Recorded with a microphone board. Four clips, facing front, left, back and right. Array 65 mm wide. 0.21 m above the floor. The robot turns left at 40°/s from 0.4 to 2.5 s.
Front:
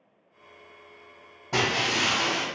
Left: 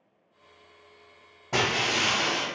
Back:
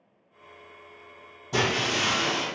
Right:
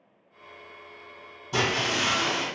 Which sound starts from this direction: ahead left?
Breaking glass, at 1.5 s.